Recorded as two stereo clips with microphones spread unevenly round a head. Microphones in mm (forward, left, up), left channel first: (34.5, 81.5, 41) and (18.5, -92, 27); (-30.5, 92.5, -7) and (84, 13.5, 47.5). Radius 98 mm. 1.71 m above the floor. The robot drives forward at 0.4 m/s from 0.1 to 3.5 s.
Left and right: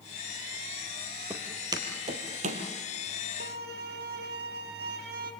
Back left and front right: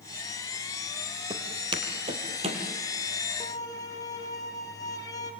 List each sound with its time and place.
1.3 s footsteps: 10° right, 2.5 m; by 2.6 s 55° right, 3 m
3.4 s a violin: 125° right, 1.6 m; by 5.3 s 130° right, 1.7 m